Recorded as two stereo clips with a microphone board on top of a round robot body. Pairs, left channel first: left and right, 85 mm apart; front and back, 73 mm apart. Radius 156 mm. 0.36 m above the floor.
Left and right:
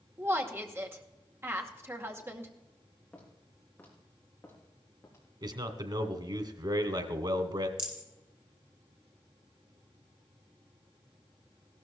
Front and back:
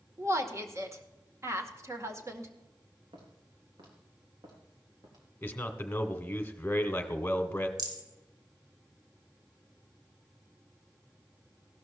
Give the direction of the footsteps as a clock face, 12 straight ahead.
6 o'clock.